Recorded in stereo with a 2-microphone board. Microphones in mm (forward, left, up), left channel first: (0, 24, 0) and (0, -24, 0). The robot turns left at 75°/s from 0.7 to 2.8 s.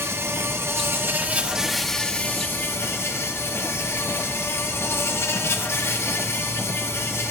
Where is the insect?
95° right, 0.8 m; by 7.3 s 105° left, 0.8 m.